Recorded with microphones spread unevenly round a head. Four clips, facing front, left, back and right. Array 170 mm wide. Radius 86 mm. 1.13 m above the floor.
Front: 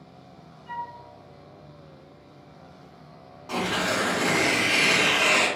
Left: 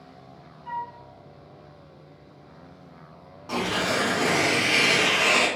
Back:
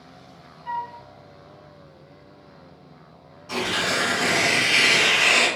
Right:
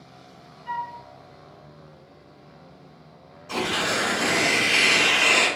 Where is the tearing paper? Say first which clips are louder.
Even, even; 65° left, 1.6 m.